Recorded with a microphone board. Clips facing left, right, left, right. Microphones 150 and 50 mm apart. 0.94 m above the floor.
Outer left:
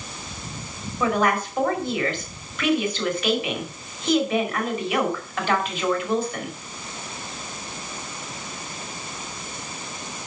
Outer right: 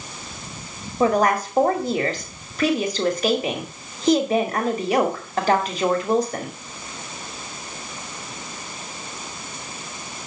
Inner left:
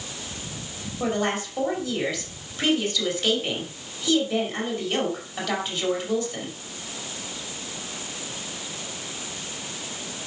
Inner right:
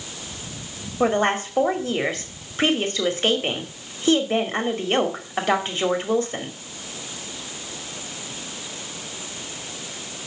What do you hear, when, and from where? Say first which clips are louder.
1.0 s a woman speaking: outer right 4 dB, inner right 5 dB; 40° right (ahead or behind), 2.5 m